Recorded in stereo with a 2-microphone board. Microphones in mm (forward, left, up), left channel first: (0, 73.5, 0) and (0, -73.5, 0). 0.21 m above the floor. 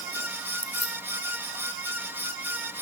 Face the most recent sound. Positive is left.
turn(degrees=45)  # may be behind; listen again after turning